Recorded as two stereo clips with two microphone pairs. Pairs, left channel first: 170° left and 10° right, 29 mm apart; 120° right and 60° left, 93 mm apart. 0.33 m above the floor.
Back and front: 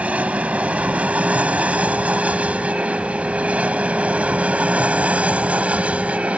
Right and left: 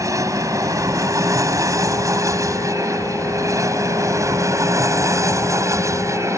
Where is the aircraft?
10° left.